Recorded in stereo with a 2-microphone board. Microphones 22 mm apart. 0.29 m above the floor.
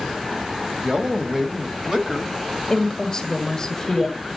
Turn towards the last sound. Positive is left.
turn(degrees=10)  # may be behind; listen again after turning